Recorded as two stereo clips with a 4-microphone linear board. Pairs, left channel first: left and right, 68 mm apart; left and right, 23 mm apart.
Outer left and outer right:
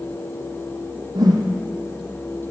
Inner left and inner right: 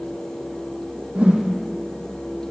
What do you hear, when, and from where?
1.1 s a whoosh: 75° right (ahead or behind), 4 m